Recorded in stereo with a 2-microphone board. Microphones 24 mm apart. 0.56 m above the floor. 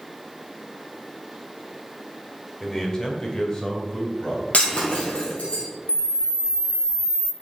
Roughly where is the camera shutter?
Left.